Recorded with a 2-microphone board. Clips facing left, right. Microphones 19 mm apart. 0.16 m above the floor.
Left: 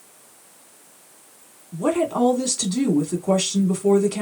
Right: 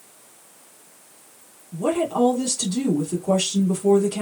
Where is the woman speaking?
25° left (ahead or behind), 1.1 m.